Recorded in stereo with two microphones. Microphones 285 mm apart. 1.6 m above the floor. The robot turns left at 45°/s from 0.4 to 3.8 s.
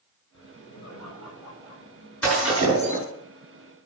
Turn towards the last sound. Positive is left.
turn(degrees=-65)